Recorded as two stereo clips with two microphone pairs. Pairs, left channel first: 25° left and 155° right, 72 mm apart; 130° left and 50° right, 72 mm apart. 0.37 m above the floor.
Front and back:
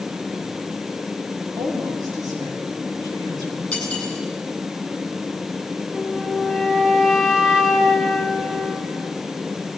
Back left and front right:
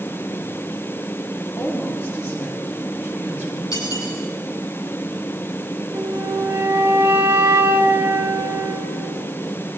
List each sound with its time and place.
1.6 s a woman speaking: 170° right, 8.5 m
3.7 s cutlery clinking: 105° left, 8.5 m
5.9 s a flute: 75° right, 2 m